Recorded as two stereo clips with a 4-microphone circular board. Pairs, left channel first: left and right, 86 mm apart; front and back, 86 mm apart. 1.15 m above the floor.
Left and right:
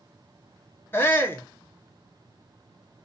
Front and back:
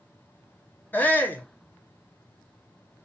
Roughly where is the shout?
Ahead left.